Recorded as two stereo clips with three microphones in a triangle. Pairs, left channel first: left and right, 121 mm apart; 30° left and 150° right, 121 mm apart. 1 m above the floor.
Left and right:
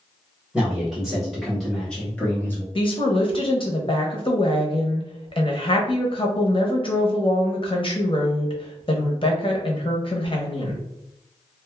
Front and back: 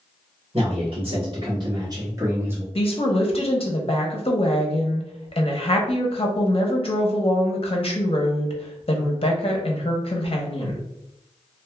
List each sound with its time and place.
0.5 s a man speaking: 175° right, 1.6 m; by 2.6 s 145° left, 0.9 m
2.8 s a woman speaking: 55° left, 0.8 m